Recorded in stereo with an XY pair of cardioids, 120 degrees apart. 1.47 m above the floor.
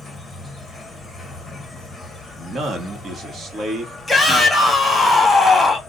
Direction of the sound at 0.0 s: 15° left.